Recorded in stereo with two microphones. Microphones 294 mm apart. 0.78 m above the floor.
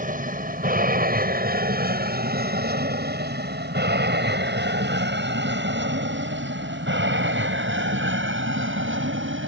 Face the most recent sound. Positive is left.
turn(degrees=-45)  # may be behind; listen again after turning